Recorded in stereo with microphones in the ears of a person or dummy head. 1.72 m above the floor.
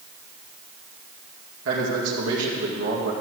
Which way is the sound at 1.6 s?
80° right.